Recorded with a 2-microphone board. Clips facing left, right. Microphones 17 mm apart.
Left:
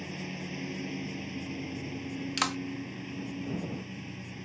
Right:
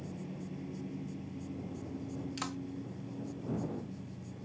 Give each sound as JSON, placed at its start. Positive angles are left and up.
{"t": 0.0, "sound": "a lawn mower", "side_deg": 75}
{"t": 2.4, "sound": "a clap", "side_deg": 45}